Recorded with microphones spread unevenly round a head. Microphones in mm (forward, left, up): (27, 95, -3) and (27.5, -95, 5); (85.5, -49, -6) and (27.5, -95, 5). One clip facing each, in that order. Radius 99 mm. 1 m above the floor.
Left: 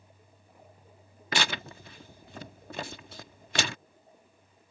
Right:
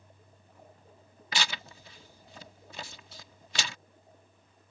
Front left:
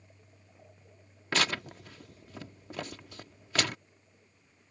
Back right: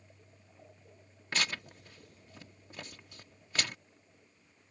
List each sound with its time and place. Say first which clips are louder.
1.3 s tearing paper: left 5 dB, front left 5 dB; 55° left